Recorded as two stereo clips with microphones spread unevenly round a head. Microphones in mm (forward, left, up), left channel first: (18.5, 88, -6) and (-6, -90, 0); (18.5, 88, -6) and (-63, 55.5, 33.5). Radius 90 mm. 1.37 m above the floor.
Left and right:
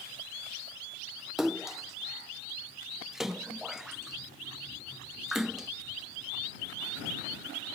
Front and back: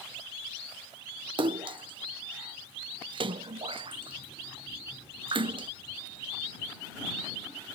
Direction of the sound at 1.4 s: 175° left.